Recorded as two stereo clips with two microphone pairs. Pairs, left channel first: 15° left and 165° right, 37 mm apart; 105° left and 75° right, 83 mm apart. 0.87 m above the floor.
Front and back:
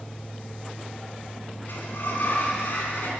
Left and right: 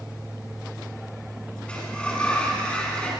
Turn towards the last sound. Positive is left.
turn(degrees=25)